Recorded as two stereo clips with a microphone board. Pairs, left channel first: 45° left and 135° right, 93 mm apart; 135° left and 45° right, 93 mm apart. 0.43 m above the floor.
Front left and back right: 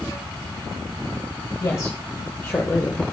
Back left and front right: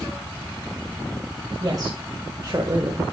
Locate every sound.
1.6 s a woman speaking: 5° right, 1.9 m; by 3.0 s 20° right, 1.2 m